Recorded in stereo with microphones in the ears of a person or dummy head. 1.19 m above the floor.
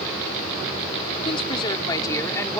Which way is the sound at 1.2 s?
30° left (ahead or behind).